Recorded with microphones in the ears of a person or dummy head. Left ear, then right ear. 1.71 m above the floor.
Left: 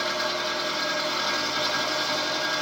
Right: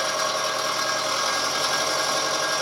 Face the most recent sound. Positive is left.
turn(degrees=-55)  # may be behind; listen again after turning